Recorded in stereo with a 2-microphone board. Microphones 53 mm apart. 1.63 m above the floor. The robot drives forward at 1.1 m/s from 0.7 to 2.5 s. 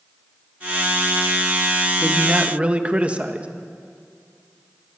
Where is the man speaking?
20° right (ahead or behind), 2 m; by 3.5 s 25° right (ahead or behind), 1.7 m.